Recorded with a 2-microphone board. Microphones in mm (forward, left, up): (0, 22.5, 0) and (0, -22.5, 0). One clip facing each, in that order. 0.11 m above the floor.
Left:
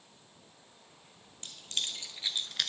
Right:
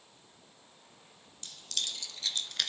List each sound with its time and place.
1.4 s keys jangling: 35° left (ahead or behind), 1.8 m; by 2.7 s centre (ahead or behind), 0.8 m